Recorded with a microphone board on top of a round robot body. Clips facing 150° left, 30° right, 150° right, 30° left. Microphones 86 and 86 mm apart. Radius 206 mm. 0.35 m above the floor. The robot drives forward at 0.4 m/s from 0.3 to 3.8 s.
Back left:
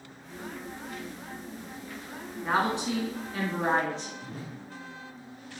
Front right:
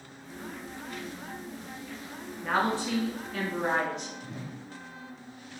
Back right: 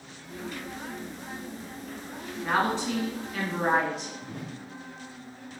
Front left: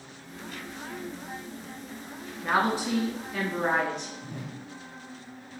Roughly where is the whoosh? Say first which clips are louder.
Even, back right 1 dB; behind.